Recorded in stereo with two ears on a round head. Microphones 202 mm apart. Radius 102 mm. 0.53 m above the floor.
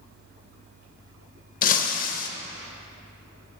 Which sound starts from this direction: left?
Breaking glass, at 1.6 s.